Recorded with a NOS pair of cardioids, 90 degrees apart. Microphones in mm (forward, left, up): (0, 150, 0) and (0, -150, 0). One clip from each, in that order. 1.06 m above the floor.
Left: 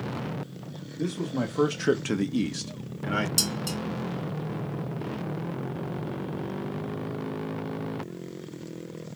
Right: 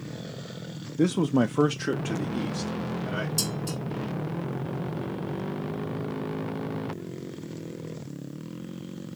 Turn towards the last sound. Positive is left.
turn(degrees=70)